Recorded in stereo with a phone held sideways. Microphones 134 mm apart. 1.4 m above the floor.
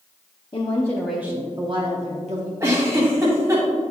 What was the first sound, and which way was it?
A woman speaking, 40° left (ahead or behind).